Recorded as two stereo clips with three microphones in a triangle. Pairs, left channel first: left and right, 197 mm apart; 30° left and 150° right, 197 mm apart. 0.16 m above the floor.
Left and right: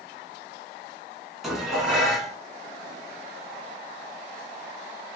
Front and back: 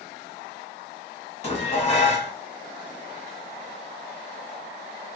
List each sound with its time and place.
1.4 s dishes clattering: straight ahead, 0.8 m